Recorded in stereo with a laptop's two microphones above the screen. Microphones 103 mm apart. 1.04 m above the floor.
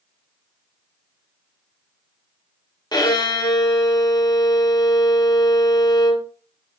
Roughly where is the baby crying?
No baby crying in this recording.